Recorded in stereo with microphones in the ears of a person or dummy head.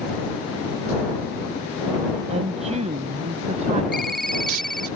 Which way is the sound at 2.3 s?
40° right (ahead or behind).